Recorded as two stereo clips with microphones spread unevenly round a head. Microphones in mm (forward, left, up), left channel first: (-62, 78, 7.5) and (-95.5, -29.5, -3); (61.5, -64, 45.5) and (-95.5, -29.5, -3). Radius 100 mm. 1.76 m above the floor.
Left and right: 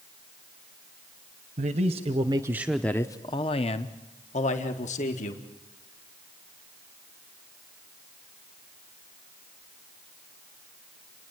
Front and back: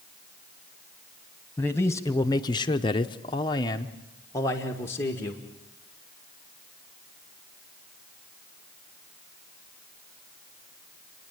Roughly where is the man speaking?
Right.